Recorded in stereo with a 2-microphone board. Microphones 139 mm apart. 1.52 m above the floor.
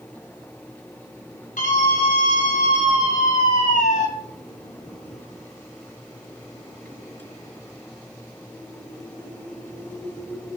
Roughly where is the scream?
Left.